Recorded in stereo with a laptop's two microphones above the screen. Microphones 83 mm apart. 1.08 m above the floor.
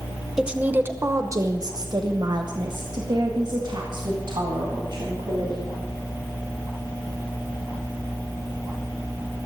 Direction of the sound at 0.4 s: 5° right (ahead or behind).